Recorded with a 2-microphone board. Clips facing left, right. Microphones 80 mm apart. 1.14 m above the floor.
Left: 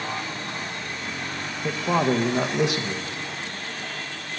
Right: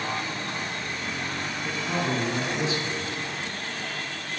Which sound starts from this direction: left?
A man speaking, at 1.6 s.